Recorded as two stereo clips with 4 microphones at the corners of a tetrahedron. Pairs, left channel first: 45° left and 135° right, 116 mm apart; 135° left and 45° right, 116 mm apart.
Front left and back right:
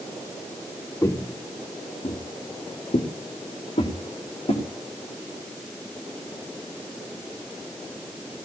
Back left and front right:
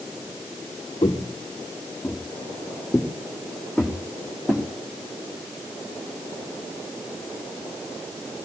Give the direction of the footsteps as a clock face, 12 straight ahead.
8 o'clock.